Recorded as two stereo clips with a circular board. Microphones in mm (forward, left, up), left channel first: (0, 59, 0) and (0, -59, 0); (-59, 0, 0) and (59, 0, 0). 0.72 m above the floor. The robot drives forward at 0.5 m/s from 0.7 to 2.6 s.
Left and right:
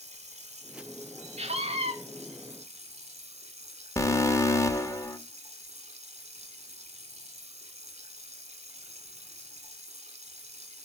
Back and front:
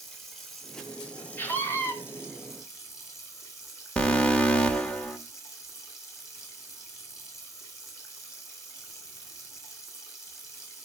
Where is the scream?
110° right, 2.0 m; by 1.9 s 115° right, 2 m.